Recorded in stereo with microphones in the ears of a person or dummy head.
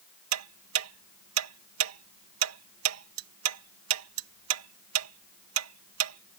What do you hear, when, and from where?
0.3 s ticking: 75° right (ahead or behind)